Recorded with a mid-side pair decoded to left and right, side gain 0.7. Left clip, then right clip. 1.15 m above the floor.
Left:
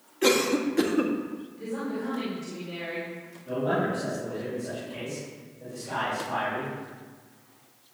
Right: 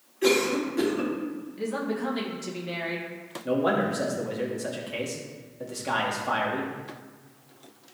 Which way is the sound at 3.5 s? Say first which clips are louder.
Right 2 dB; 55° right.